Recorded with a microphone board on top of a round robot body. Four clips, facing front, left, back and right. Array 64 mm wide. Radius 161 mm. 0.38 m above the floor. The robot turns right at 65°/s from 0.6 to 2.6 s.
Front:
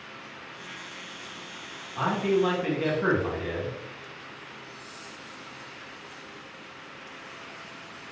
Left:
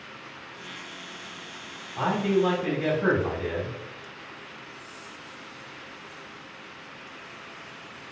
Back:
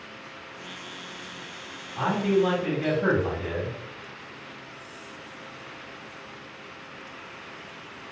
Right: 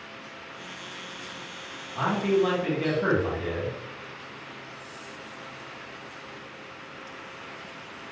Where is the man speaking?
55° right, 1.3 m; by 3.8 s 15° right, 1.3 m.